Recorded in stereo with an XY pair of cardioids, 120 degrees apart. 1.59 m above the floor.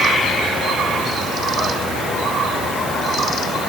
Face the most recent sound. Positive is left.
No sound to turn to.